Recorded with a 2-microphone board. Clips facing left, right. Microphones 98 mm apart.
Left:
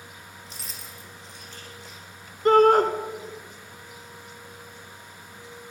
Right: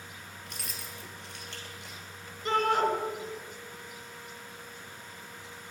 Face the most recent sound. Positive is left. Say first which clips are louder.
# left 11 dB
turn(degrees=55)  # may be behind; listen again after turning